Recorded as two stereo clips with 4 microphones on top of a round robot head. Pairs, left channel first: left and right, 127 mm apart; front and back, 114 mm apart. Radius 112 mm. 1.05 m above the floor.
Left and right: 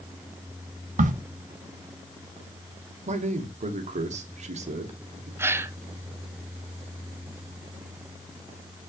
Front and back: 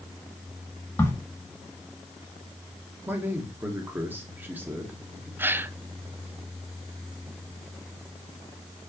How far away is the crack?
About 1.0 m.